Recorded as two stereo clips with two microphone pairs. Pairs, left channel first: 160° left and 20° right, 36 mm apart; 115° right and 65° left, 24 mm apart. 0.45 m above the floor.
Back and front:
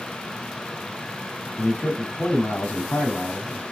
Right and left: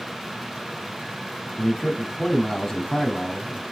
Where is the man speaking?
Straight behind, 4 m.